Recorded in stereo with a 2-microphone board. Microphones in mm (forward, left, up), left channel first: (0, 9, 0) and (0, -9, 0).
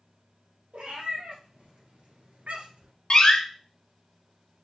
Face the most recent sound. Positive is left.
turn(degrees=40)  # may be behind; listen again after turning